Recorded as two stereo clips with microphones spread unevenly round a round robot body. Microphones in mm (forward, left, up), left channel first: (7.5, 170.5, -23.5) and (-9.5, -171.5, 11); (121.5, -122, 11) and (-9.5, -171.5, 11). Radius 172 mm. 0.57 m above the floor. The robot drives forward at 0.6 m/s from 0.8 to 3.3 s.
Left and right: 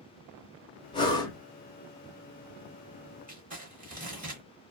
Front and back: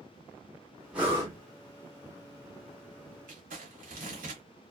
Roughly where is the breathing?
Behind left.